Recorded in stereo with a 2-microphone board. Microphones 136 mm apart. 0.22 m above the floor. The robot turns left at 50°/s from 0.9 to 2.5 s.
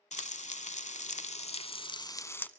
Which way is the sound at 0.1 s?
95° left.